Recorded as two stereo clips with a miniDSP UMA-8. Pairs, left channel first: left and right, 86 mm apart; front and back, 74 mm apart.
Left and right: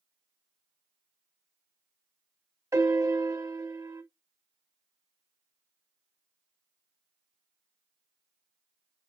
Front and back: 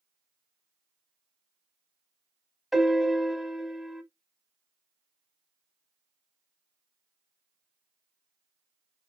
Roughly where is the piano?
Right.